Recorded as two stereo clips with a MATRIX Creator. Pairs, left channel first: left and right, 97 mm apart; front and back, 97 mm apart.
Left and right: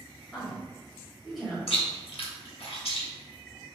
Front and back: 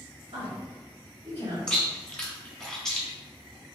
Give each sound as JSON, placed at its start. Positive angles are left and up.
{"t": 0.3, "sound": "a woman speaking", "azimuth_deg": 175, "distance_m": 1.6}
{"t": 1.7, "sound": "chewing", "azimuth_deg": 85, "distance_m": 1.0}